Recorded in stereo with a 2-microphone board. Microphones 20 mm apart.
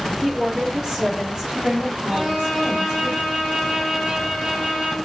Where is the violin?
40° right (ahead or behind), 2 m.